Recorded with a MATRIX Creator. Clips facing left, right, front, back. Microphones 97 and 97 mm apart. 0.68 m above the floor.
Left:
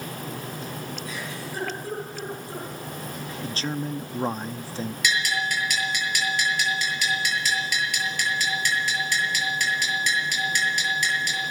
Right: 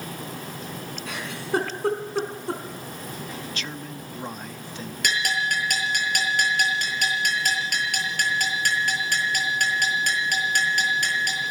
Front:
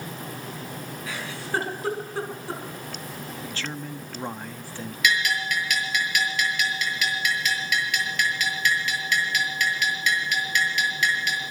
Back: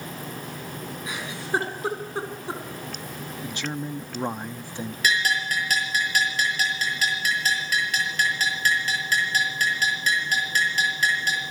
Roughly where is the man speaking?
Behind left.